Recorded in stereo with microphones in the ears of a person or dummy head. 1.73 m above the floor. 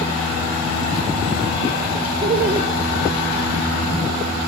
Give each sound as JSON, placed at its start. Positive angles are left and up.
{"t": 2.2, "sound": "laughter", "side_deg": -35, "distance_m": 1.5}